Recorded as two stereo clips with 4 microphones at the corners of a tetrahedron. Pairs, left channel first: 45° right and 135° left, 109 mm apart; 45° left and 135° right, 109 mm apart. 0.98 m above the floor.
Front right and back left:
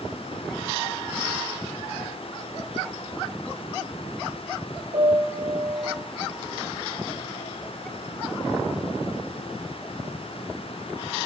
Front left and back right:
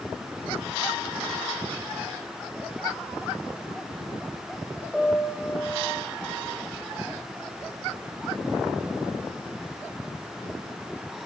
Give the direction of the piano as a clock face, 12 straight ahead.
8 o'clock.